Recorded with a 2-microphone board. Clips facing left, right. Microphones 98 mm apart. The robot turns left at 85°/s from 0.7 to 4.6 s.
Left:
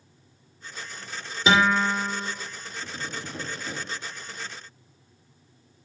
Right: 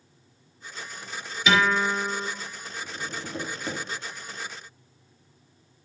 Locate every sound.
1.5 s a guitar: 35° left, 2 m; by 2.3 s 35° right, 2 m
2.8 s tapping: 35° left, 3.5 m; by 3.8 s 50° right, 3.5 m